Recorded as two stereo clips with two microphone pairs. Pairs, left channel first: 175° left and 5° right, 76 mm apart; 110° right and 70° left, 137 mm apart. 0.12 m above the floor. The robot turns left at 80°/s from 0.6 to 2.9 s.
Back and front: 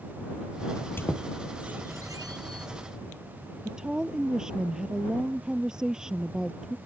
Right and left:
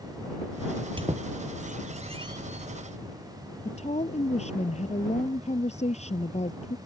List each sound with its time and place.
0.7 s a squeak: 140° left; by 2.7 s 20° right
3.6 s a woman speaking: 85° right